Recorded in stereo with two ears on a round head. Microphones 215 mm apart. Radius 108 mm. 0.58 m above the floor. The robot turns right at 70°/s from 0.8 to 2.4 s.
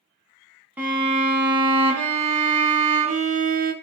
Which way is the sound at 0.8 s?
170° right.